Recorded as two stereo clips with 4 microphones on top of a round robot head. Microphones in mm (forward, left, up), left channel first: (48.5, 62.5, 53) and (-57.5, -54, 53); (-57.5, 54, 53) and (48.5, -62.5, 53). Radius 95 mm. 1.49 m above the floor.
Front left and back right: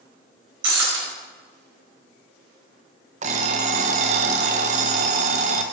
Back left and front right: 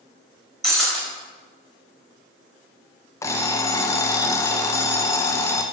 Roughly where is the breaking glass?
Behind right.